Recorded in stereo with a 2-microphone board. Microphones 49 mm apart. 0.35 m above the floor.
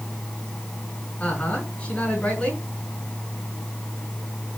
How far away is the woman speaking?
About 4.5 m.